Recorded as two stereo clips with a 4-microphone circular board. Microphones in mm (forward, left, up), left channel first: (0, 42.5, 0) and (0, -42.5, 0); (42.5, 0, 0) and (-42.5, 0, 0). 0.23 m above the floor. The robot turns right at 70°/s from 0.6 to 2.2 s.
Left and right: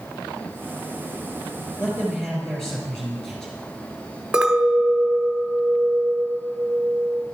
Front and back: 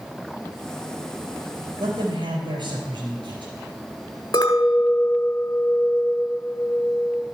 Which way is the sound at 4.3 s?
10° right.